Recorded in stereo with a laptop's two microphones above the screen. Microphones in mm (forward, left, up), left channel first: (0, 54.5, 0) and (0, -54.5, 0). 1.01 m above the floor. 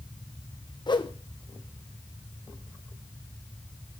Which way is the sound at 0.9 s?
45° left (ahead or behind).